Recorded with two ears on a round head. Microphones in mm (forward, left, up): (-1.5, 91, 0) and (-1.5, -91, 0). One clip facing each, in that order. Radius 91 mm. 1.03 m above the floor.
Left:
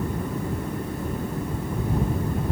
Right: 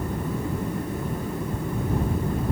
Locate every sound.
Only background noise.